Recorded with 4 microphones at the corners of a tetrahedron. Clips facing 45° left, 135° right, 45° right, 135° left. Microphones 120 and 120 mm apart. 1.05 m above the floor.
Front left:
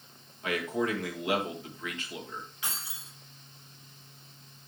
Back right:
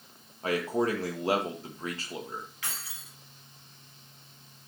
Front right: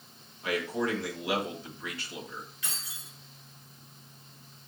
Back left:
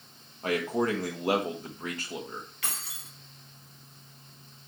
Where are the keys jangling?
115° left, 1.8 m.